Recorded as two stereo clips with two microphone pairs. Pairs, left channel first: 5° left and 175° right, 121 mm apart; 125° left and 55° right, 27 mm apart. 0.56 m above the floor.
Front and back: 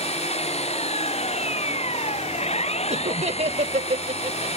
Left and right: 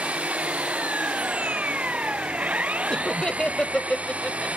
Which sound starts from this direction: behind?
Laughter, at 2.9 s.